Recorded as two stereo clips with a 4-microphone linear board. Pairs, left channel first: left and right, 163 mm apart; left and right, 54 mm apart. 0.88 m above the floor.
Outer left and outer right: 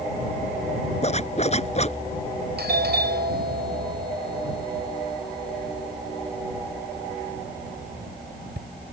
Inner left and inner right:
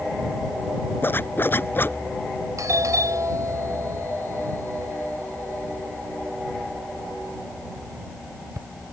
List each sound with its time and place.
1.0 s a zipper: 40° left (ahead or behind)
2.6 s a doorbell: 75° right (ahead or behind)